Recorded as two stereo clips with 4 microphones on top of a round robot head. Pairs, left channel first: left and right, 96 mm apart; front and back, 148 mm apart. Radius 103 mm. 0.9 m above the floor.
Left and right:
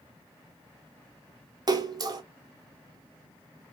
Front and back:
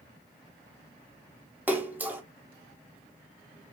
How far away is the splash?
About 1.2 m.